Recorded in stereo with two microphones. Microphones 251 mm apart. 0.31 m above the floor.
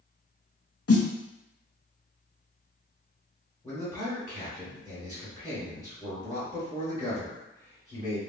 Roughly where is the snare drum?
Left.